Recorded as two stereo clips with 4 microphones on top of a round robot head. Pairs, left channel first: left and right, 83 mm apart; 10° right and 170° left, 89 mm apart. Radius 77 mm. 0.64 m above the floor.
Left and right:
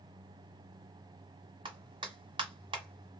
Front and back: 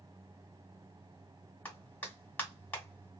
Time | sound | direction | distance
1.6 | a clap | 80° right | 1.2 m